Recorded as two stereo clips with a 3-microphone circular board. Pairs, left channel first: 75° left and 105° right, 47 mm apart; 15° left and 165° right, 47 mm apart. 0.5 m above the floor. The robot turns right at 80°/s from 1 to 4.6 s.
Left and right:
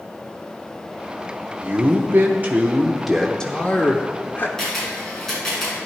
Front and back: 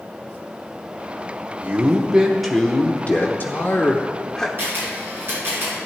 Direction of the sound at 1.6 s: 135° right.